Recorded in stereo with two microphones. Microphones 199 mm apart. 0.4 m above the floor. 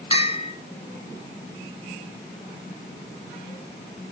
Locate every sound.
0.1 s a bell: 30° left (ahead or behind), 0.9 m